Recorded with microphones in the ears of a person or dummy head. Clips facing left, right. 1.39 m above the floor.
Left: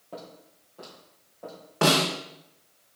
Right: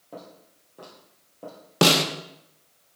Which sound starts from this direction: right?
A snare drum, at 1.8 s.